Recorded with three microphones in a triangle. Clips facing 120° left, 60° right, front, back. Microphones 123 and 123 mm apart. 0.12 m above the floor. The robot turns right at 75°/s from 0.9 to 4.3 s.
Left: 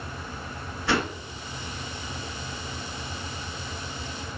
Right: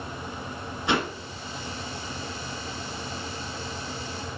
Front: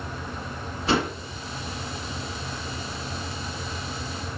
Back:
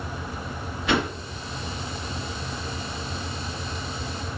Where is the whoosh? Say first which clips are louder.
Even, even; 5° right, 1.4 m; by 1.1 s 10° left, 1.4 m.